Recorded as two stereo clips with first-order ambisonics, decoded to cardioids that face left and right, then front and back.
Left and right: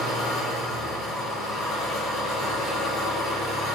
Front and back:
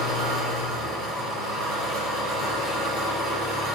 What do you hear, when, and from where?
0.0 s an engine running: 140° left, 4.5 m